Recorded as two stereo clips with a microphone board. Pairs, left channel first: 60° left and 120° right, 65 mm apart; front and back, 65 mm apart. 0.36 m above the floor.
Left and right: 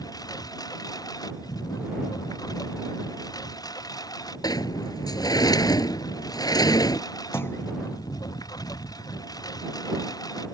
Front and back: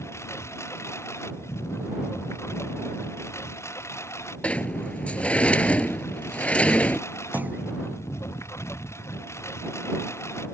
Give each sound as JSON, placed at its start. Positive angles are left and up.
{"t": 0.0, "sound": "a lawn mower", "azimuth_deg": 45}
{"t": 4.4, "sound": "a sliding door", "azimuth_deg": 70}
{"t": 7.3, "sound": "a clunk", "azimuth_deg": 115}